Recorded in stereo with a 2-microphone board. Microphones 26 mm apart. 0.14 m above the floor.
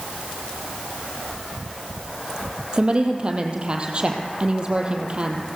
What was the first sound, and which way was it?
A woman speaking, 40° right (ahead or behind).